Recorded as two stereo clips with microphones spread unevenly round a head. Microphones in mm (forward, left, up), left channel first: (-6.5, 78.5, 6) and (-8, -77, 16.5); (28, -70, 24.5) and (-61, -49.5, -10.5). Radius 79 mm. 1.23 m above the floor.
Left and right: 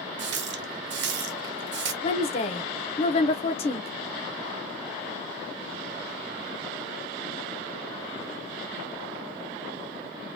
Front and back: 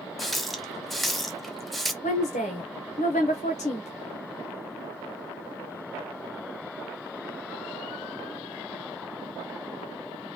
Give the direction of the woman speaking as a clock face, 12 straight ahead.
11 o'clock.